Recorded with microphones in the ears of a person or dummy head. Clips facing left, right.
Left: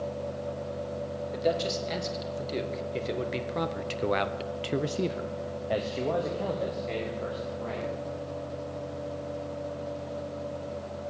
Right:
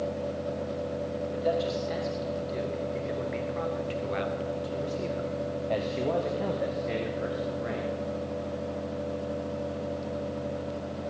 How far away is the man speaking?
About 3 m.